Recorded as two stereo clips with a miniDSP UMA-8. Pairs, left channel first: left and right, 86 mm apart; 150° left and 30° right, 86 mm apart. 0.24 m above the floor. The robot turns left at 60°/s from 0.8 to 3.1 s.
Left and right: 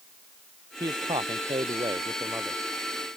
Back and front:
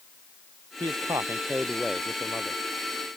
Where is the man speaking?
55° right; by 2.6 s 160° right.